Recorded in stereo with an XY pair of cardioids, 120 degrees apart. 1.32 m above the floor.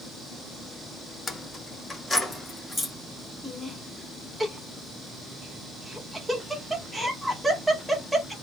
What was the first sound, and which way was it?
Keys jangling, 20° left.